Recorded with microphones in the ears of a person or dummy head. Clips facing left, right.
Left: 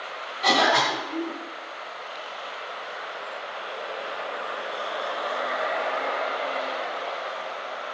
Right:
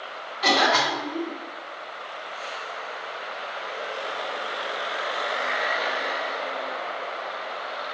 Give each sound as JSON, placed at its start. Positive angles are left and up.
{"t": 0.4, "sound": "a cough", "side_deg": -70, "distance_m": 1.2}